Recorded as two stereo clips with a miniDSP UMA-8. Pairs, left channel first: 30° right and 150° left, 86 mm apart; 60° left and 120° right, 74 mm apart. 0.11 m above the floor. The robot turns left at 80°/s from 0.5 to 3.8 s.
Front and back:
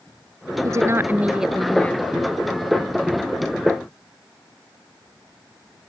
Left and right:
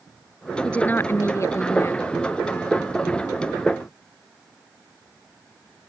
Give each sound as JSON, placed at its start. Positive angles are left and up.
{"t": 0.6, "sound": "a woman speaking", "azimuth_deg": 130}